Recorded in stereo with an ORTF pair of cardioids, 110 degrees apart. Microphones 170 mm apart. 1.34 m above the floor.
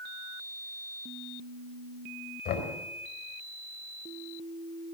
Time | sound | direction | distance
2.5 | knocking | 65° left | 4 m